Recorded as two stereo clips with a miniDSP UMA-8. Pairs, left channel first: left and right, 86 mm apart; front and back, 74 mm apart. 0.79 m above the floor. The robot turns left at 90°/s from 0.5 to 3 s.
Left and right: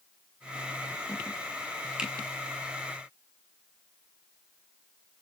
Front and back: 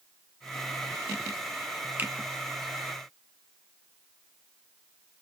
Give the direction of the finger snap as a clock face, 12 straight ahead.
5 o'clock.